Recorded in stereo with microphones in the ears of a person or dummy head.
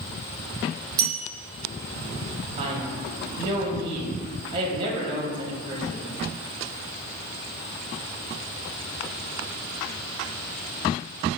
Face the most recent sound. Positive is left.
turn(degrees=-25)  # may be behind; listen again after turning